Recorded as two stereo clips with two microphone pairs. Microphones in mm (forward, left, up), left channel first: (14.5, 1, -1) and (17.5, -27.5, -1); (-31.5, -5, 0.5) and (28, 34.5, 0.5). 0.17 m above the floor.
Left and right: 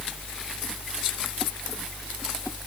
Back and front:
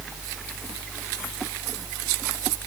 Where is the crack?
I don't hear a crack.